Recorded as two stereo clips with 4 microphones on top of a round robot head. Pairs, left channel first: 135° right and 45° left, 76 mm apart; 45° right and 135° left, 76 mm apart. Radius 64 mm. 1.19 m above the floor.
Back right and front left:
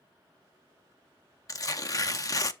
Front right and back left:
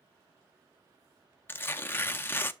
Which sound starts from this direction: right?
Tearing paper, at 1.5 s.